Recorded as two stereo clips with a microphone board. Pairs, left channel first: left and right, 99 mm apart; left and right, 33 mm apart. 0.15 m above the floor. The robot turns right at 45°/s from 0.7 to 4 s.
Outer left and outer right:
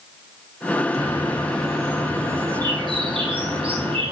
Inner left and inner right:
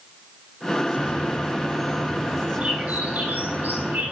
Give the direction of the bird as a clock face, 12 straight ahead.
7 o'clock.